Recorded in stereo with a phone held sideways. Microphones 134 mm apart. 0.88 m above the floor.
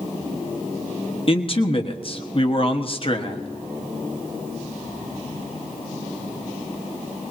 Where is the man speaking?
40° left (ahead or behind), 1.3 m.